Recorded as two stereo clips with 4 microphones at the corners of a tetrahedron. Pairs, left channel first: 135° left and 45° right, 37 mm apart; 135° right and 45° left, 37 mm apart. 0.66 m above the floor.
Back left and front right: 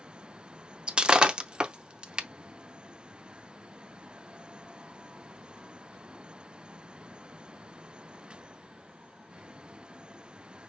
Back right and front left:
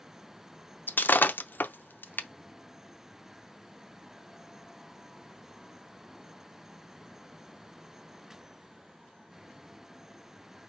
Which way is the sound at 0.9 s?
110° right.